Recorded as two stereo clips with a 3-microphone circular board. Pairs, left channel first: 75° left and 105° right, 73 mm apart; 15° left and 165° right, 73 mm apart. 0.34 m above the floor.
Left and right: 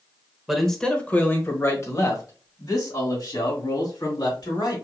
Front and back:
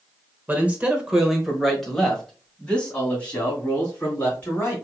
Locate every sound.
0.5 s a man speaking: 170° left, 1.1 m; by 4.8 s 80° left, 3.5 m